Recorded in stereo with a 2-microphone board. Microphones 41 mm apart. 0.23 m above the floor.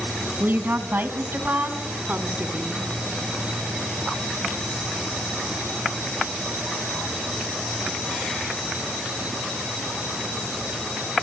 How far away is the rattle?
No rattle in this recording.